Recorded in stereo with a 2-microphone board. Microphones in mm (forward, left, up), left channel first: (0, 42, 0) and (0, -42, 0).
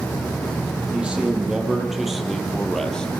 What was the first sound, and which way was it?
A man speaking, 15° right (ahead or behind).